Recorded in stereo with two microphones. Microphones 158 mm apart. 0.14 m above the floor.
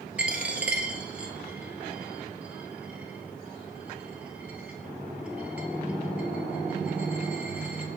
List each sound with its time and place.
0.2 s a dropped coin: 10° right (ahead or behind), 1.2 m